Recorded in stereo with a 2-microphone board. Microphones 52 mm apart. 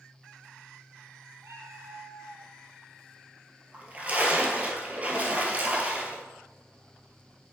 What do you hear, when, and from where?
1.4 s a cat meowing: 70° right (ahead or behind), 1.1 m
3.7 s a splash: 30° right (ahead or behind), 1.4 m